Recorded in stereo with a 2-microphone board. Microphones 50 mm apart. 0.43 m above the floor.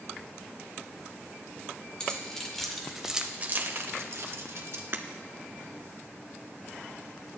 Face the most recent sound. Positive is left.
turn(degrees=-50)  # may be behind; listen again after turning